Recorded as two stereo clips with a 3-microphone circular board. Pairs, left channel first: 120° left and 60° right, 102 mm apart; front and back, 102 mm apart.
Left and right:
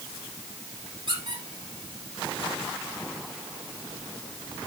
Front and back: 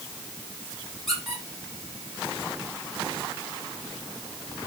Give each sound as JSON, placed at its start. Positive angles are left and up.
{"t": 1.1, "sound": "a squeak", "azimuth_deg": -90, "distance_m": 5.0}